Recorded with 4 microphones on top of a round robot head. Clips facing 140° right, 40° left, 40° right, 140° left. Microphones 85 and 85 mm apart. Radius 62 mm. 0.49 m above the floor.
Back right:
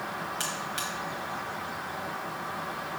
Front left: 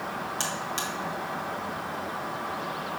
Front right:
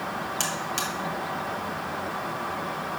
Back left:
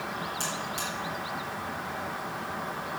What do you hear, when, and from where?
0.4 s a buzzer: 20° right, 1.7 m